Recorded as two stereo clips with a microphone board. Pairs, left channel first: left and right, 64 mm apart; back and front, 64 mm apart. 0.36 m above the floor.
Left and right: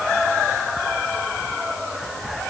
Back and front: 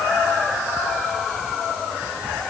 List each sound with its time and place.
Only background noise.